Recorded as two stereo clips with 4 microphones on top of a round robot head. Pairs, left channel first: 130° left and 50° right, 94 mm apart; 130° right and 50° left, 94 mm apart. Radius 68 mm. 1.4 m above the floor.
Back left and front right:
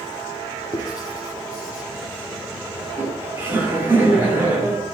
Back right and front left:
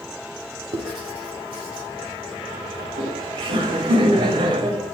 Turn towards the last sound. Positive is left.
turn(degrees=20)